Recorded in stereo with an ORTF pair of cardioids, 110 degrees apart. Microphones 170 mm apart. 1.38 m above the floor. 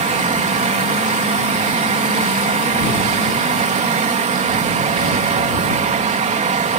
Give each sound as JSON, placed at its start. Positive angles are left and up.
{"t": 0.0, "sound": "a fan", "azimuth_deg": -45}